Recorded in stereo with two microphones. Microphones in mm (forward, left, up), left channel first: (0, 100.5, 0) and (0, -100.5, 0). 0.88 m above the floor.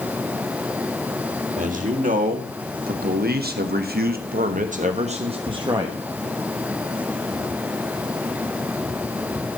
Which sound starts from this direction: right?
A man speaking, at 1.6 s.